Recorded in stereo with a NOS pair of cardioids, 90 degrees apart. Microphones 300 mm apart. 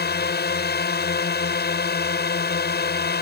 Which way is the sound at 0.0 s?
35° left.